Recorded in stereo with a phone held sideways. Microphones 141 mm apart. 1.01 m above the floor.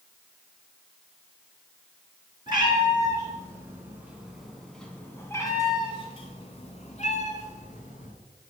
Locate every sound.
2.5 s a cat meowing: 35° right (ahead or behind), 2.0 m; by 8.1 s 65° left (ahead or behind), 2 m